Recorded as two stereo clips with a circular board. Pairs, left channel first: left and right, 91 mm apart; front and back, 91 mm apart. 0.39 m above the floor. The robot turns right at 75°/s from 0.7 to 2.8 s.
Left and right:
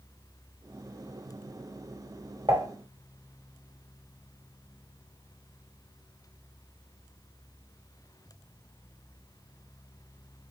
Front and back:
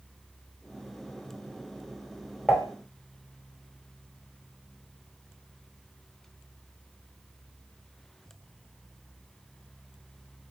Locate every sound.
2.5 s dishes clattering: 90° right, 1.3 m; by 2.7 s 75° right, 1.3 m